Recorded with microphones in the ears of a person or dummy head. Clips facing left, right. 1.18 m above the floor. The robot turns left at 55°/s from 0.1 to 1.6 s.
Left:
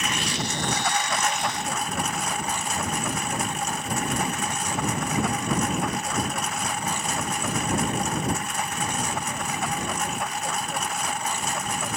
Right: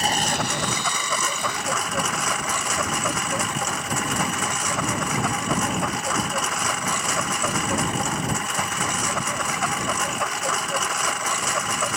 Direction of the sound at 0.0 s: 40° right.